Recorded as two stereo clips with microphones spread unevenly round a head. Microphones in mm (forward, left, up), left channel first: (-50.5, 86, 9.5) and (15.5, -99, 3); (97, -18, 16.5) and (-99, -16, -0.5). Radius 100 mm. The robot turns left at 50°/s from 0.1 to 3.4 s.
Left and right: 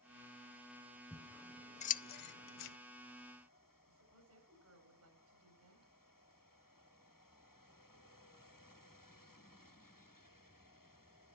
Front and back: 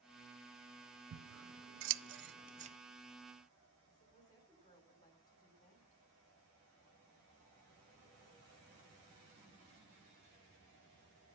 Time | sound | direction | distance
1.1 | scissors | 160° right | 0.6 m
3.9 | a woman speaking | 75° right | 3.5 m